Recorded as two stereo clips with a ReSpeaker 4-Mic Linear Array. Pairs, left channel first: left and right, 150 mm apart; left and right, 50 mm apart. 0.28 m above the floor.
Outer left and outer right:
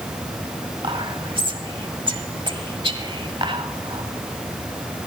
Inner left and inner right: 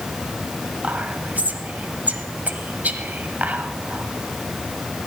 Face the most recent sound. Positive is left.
turn(degrees=-35)  # may be behind; listen again after turning